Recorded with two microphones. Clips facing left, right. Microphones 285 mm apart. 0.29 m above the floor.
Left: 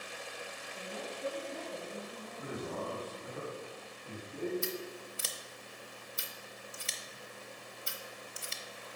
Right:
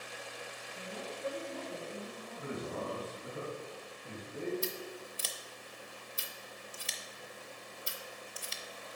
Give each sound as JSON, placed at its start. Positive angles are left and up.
{"t": 0.7, "sound": "a woman speaking", "side_deg": -60, "distance_m": 2.5}
{"t": 2.4, "sound": "a man speaking", "side_deg": -30, "distance_m": 1.8}
{"t": 4.6, "sound": "scissors", "side_deg": 25, "distance_m": 0.7}